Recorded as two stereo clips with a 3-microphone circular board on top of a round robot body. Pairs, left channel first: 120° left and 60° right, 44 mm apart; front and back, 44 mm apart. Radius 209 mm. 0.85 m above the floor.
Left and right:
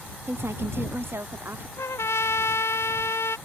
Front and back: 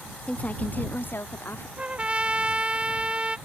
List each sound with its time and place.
0.3 s a woman speaking: 60° right; by 1.7 s 35° right
1.8 s a trumpet: 115° left